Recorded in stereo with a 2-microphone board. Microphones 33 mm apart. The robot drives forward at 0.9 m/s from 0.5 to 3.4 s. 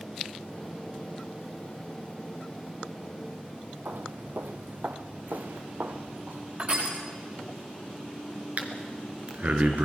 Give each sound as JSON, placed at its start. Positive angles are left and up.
{"t": 3.9, "sound": "footsteps", "side_deg": -75, "distance_m": 0.9}
{"t": 6.6, "sound": "crushing", "side_deg": -50, "distance_m": 8.0}
{"t": 8.6, "sound": "breathing", "side_deg": -50, "distance_m": 2.5}